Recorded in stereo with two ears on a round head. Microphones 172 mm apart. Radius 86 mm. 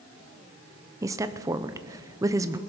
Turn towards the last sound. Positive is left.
turn(degrees=-15)  # may be behind; listen again after turning